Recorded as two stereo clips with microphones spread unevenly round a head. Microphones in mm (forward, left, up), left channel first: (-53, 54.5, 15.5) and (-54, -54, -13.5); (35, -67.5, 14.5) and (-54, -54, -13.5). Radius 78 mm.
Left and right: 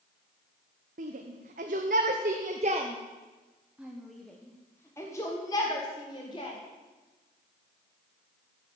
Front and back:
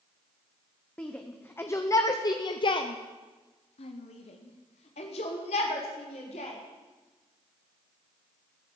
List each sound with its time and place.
1.0 s a shout: 85° right, 1.2 m; by 6.6 s 30° left, 2 m